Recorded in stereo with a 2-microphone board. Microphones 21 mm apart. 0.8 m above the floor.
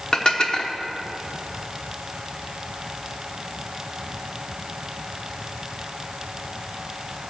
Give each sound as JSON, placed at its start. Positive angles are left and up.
{"t": 0.1, "sound": "dishes clattering", "side_deg": 35, "distance_m": 1.0}